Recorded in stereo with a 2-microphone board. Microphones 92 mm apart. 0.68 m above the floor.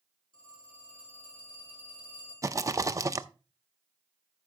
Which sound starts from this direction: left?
A phone ringing, at 0.3 s.